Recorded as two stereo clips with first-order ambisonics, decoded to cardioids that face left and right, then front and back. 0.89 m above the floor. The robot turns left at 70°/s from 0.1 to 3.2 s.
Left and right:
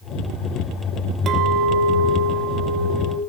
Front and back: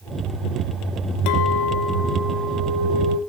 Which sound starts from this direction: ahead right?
A clink, at 1.3 s.